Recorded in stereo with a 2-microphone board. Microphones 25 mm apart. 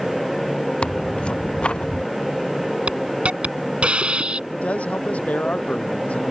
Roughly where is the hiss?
Right.